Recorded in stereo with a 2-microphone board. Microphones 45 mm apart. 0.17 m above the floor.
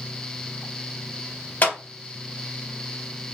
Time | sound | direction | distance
1.6 | a clap | 40° left (ahead or behind) | 2.5 m